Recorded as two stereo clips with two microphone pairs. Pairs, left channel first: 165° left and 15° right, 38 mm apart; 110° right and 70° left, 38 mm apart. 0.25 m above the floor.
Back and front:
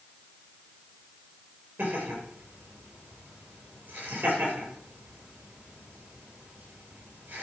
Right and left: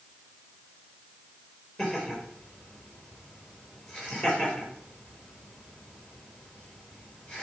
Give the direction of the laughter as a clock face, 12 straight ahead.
2 o'clock.